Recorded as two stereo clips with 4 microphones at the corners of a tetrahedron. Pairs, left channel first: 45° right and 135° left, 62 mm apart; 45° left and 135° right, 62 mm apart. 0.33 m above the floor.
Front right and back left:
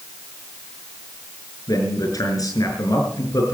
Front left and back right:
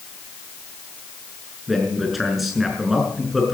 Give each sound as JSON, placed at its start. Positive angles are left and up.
{"t": 1.7, "sound": "a man speaking", "azimuth_deg": -45, "distance_m": 5.5}